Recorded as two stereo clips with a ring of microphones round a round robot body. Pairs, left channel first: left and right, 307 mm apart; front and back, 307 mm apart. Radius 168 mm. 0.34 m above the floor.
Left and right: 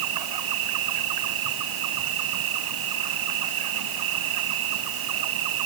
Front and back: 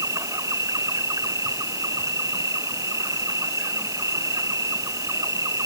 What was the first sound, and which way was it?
An insect, 100° right.